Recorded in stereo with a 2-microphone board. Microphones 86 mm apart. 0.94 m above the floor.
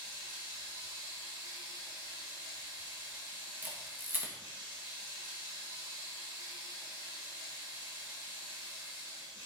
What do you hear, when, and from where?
0.0 s running water: 30° right (ahead or behind), 4.5 m
3.6 s a camera shutter: 20° right (ahead or behind), 1.5 m